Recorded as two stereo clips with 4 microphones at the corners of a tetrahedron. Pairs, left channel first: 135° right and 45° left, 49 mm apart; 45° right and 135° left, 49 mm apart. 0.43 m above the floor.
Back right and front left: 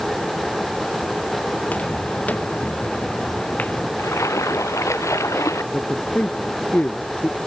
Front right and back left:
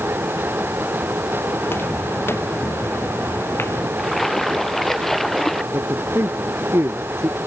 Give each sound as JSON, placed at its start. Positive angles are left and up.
{"t": 1.6, "sound": "footsteps", "azimuth_deg": -80}
{"t": 4.0, "sound": "a splash", "azimuth_deg": -130}
{"t": 5.7, "sound": "a man speaking", "azimuth_deg": 165}